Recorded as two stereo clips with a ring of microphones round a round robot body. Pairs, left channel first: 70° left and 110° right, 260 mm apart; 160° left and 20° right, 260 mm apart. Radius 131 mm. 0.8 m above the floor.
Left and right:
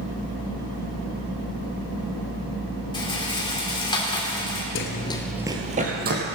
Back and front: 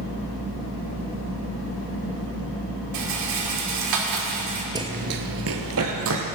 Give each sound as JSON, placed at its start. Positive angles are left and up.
{"t": 2.9, "sound": "a rattle", "azimuth_deg": -5, "distance_m": 2.0}
{"t": 4.8, "sound": "running footsteps", "azimuth_deg": 45, "distance_m": 1.0}